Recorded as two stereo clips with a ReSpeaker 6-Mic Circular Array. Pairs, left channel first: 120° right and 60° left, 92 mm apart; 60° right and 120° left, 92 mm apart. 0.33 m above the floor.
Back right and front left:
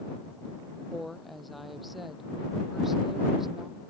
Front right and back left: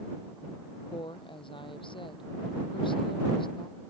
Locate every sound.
0.9 s a woman speaking: 30° right; by 3.8 s 25° right